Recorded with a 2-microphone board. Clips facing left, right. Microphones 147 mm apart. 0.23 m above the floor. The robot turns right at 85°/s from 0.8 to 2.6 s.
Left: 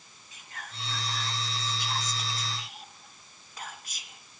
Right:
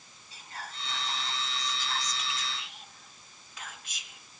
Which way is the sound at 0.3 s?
65° right.